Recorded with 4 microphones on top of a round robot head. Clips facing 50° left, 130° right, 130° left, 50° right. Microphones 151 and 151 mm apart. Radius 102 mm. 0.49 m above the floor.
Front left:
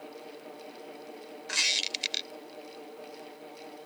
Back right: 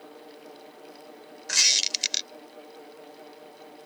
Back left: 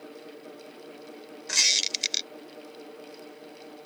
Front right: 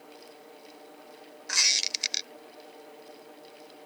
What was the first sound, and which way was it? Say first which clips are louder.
A squeak: even, front right 1 dB; 170° right.